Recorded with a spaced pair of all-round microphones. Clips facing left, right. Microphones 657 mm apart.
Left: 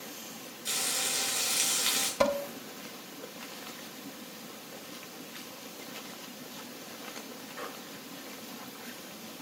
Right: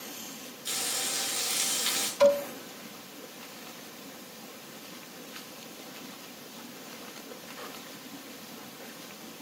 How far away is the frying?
About 5.5 m.